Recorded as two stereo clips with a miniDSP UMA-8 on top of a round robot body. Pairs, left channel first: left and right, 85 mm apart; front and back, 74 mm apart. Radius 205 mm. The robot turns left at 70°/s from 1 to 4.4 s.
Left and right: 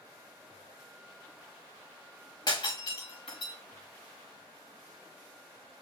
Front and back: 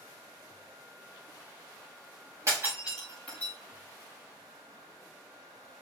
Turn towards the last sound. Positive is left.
turn(degrees=-5)